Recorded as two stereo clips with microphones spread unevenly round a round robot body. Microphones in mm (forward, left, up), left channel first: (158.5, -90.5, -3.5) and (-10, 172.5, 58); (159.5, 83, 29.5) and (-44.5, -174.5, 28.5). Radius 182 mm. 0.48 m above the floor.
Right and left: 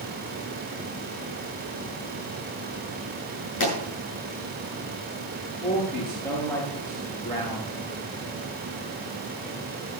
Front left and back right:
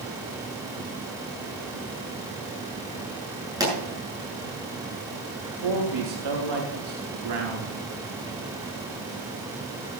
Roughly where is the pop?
Ahead right.